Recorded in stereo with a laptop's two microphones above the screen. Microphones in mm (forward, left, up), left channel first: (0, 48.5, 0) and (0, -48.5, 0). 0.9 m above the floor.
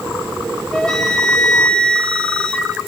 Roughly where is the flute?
Centre.